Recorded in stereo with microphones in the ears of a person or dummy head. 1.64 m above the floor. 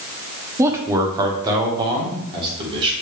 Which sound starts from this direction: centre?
A man speaking, at 0.6 s.